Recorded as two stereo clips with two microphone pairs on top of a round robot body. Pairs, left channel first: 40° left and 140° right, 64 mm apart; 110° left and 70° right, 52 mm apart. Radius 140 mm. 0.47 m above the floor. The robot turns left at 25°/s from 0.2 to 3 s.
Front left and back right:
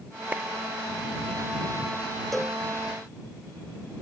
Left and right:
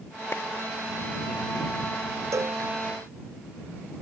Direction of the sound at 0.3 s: 155° left.